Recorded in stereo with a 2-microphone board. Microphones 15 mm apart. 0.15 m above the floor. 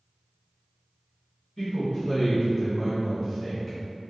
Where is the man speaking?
40° left (ahead or behind), 1.8 m; by 3.8 s centre (ahead or behind), 1.4 m.